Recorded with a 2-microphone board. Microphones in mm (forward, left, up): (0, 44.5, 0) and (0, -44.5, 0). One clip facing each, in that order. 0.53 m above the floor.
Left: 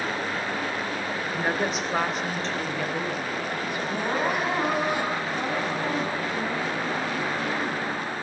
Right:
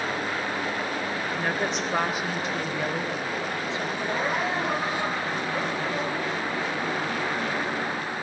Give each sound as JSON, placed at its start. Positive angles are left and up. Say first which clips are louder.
{"t": 1.3, "sound": "a woman speaking", "louder": "left 2 dB", "side_deg": 15, "distance_m": 1.7}
{"t": 3.9, "sound": "crying", "louder": "left 3 dB", "side_deg": 60, "distance_m": 9.0}